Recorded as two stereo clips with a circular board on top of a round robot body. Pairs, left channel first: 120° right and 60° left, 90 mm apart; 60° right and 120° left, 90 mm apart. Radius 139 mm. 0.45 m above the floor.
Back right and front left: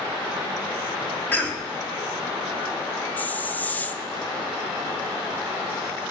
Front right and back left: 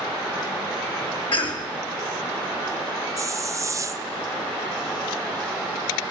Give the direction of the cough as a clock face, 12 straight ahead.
2 o'clock.